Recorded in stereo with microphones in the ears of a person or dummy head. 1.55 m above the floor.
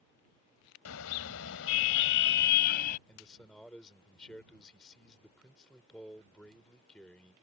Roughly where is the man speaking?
Centre.